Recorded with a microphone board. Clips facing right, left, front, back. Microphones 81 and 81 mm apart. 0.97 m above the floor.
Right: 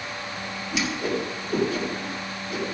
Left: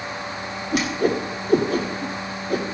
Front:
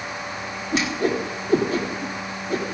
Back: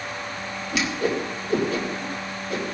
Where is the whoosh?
55° left, 2.0 m.